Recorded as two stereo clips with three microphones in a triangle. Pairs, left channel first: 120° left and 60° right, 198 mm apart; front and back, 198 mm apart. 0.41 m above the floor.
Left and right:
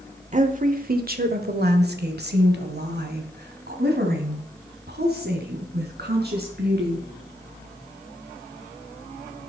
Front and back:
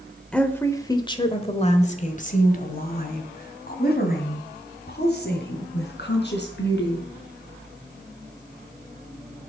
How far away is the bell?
I don't hear a bell.